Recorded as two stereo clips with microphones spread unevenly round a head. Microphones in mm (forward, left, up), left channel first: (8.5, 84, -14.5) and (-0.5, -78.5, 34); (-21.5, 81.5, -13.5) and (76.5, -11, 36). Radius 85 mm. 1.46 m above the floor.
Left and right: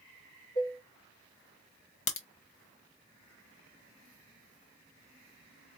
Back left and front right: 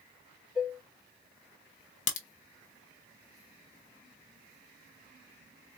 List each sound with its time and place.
0.6 s dishes clattering: 40° left, 2.5 m
2.1 s a crack: 120° left, 0.8 m